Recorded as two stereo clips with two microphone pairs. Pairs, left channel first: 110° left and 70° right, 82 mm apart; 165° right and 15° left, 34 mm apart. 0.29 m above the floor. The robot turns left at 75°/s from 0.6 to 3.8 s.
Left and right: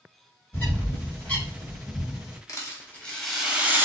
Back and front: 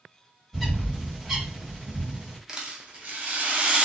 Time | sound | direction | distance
0.5 | a bird | 120° left | 1.3 m
2.5 | a rattle | 80° left | 0.7 m